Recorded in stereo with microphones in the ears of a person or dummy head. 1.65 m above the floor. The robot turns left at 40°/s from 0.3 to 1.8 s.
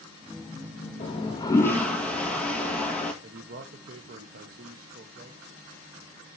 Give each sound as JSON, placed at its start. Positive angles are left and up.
{"t": 1.0, "sound": "a toilet flushing", "azimuth_deg": 40, "distance_m": 1.9}
{"t": 3.2, "sound": "a man speaking", "side_deg": -50, "distance_m": 1.1}